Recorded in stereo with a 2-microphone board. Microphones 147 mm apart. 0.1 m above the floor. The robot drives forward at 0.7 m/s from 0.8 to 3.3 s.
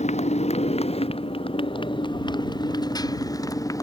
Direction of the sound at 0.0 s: 50° left (ahead or behind).